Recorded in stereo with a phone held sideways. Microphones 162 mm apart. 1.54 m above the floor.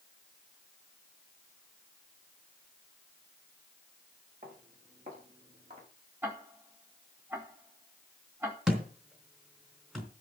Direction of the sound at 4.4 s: 50° right (ahead or behind).